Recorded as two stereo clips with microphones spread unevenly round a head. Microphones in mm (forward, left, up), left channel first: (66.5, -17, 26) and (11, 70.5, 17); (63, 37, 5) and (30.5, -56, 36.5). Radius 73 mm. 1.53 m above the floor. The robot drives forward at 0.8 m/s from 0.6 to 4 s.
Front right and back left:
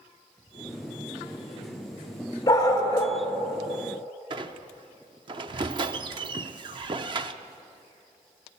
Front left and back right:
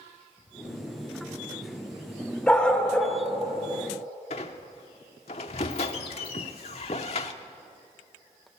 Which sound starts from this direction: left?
A squeak, at 4.3 s.